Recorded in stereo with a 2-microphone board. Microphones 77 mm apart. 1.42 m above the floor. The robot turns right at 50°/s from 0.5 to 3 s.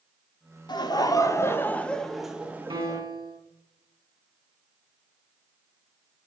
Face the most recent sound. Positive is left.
turn(degrees=-65)  # may be behind; listen again after turning